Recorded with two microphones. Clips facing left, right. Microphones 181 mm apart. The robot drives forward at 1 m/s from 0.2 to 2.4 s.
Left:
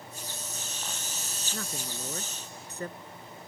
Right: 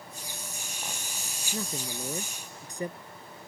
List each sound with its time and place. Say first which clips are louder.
1.5 s a man speaking: right 4 dB; 15° right (ahead or behind)